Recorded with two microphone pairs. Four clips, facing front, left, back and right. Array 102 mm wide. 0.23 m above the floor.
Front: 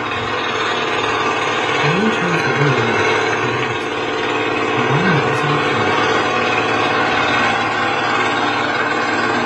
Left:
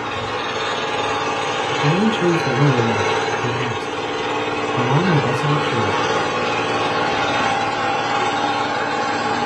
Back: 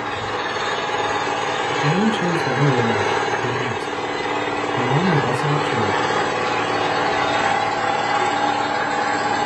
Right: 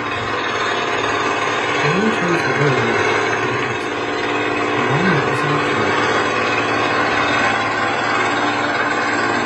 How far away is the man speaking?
About 2.0 m.